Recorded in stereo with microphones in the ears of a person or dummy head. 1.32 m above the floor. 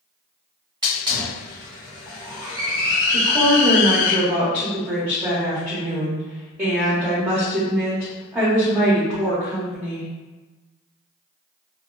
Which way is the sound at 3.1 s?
15° right (ahead or behind).